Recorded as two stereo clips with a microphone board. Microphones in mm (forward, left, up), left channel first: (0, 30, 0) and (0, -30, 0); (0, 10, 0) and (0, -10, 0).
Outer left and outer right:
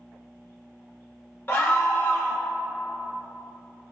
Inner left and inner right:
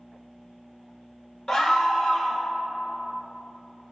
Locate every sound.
1.5 s a scream: 35° left (ahead or behind), 0.8 m